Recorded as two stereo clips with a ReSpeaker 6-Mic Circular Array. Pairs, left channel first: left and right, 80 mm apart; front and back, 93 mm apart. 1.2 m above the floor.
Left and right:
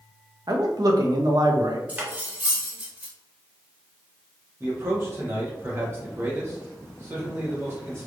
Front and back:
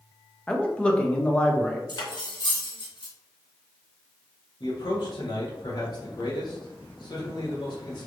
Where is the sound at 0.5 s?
75° right, 0.7 m.